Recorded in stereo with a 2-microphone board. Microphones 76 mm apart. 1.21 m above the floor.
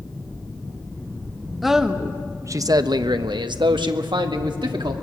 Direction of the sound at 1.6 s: Centre (ahead or behind).